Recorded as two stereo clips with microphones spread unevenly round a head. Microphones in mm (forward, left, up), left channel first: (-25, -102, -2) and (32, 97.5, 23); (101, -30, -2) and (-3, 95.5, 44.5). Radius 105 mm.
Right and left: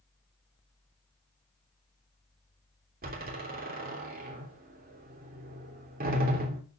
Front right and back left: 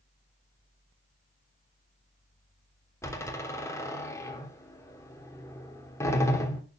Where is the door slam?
25° left, 3 m.